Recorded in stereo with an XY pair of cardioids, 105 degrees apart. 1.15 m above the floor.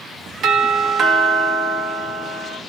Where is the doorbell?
55° right, 1.6 m.